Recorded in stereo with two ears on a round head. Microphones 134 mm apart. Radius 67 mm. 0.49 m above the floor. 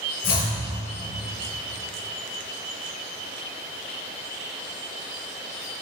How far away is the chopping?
About 4 m.